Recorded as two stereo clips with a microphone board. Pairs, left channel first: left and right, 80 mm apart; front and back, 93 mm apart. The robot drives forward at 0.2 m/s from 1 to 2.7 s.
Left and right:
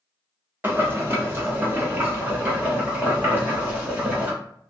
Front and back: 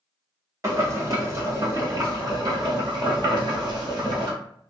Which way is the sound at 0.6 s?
140° right.